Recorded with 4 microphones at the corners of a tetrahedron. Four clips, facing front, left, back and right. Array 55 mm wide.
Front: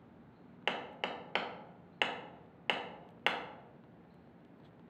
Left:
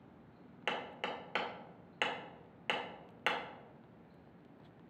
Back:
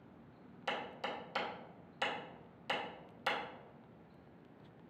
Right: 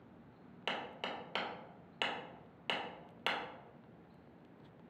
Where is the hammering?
15° left, 0.7 m.